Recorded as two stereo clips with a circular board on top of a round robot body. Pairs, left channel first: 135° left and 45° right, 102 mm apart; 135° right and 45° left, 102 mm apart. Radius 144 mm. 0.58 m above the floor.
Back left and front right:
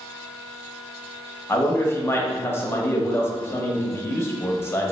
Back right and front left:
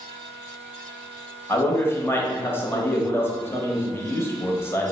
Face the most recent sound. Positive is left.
turn(degrees=180)